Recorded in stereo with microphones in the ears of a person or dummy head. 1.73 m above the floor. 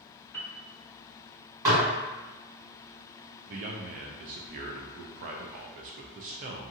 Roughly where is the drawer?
No drawer in this recording.